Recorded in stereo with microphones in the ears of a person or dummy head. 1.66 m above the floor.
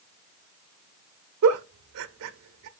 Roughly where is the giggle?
Right.